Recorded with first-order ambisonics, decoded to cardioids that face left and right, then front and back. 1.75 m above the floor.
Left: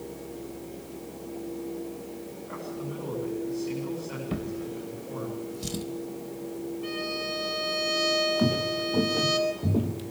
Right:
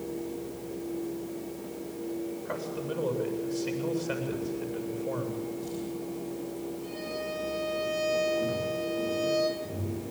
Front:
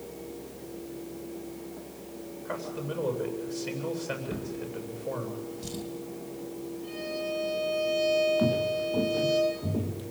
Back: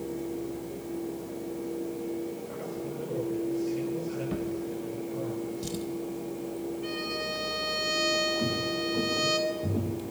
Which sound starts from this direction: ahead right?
A man speaking, at 2.5 s.